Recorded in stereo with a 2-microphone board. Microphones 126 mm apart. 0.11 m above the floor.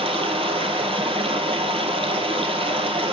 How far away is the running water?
About 1.6 m.